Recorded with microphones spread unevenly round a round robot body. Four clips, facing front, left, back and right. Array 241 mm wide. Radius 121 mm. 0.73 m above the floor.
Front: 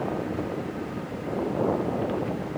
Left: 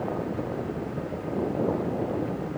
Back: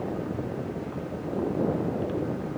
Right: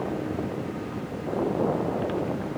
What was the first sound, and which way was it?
Only background noise.